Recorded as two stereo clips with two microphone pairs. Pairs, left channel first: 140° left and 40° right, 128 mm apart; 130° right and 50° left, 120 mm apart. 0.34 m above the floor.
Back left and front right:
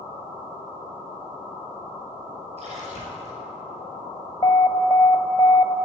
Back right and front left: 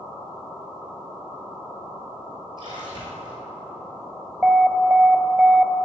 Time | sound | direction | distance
2.6 | a splash | 5° right | 3.5 m
4.4 | an alarm | 130° left | 0.6 m